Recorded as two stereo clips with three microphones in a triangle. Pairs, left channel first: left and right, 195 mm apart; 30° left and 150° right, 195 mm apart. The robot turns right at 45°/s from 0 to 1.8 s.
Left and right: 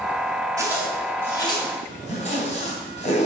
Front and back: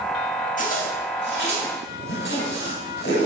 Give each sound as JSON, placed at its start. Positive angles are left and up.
{"t": 0.6, "sound": "a zipper", "azimuth_deg": -20, "distance_m": 3.0}